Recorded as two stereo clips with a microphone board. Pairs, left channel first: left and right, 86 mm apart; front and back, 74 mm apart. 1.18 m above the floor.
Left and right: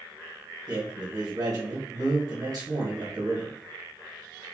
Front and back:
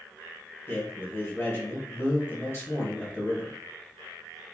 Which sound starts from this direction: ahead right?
A man speaking, at 0.7 s.